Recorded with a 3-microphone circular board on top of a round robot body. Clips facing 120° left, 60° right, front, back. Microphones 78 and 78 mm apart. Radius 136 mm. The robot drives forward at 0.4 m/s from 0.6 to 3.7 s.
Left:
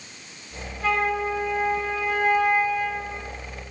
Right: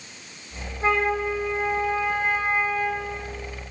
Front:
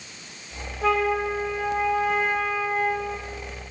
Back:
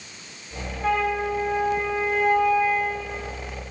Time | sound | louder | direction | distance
0.8 | a flute | right 1 dB, front 1 dB | 5° left | 5.5 m